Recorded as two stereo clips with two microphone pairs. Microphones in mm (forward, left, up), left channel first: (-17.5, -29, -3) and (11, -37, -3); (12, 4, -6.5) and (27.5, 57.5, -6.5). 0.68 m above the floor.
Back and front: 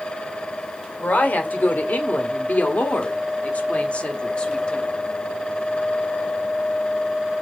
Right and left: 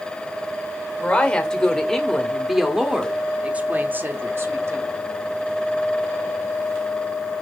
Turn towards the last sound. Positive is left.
turn(degrees=100)